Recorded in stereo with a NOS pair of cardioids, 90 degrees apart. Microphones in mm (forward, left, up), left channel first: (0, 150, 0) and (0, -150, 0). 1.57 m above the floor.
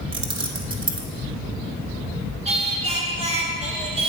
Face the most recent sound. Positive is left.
turn(degrees=-20)